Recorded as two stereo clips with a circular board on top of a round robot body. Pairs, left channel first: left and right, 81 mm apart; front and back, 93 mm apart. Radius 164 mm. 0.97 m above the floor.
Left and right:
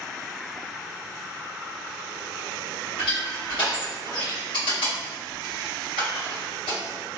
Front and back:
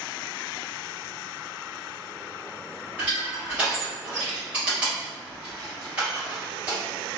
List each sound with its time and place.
3.0 s crushing: 105° left, 1.9 m